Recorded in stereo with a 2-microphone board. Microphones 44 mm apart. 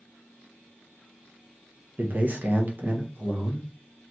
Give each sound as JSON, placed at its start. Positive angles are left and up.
{"t": 2.0, "sound": "a man speaking", "side_deg": -40, "distance_m": 1.2}